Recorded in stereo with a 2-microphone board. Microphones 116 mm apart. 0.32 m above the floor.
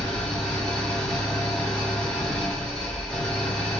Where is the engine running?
5° left (ahead or behind), 1.6 m.